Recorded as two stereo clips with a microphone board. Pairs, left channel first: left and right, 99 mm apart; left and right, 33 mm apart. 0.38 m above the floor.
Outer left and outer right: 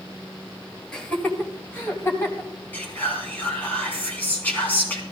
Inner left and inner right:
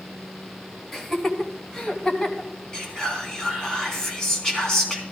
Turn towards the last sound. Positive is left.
turn(degrees=15)  # may be behind; listen again after turning